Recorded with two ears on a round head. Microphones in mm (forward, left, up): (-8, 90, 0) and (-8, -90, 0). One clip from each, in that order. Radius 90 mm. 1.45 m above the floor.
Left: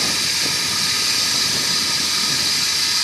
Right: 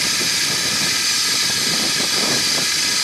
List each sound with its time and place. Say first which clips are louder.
0.0 s running water: right 1 dB; 45° right (ahead or behind), 4 m